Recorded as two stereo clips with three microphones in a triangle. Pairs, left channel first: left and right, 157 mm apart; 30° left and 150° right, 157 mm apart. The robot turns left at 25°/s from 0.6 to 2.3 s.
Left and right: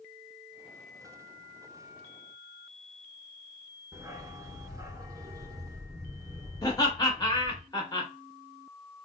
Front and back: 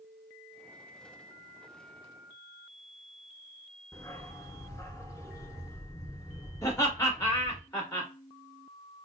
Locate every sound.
3.9 s a dog barking: 30° right, 0.6 m
6.6 s laughter: 75° left, 1.8 m